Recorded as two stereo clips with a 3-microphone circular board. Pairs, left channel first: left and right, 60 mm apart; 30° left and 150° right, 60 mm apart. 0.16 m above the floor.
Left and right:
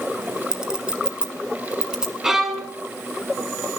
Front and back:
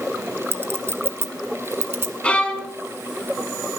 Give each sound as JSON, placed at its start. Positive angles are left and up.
{"t": 0.5, "sound": "a clink", "azimuth_deg": -160, "distance_m": 1.3}
{"t": 2.2, "sound": "a violin", "azimuth_deg": -15, "distance_m": 1.2}